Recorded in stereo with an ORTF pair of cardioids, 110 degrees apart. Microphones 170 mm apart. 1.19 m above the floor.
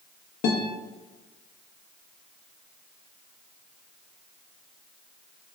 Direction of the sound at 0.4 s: 70° left.